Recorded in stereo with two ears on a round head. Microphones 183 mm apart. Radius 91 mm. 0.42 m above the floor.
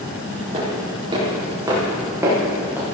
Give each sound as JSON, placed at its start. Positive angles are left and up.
{"t": 0.5, "sound": "footsteps", "side_deg": -30, "distance_m": 5.5}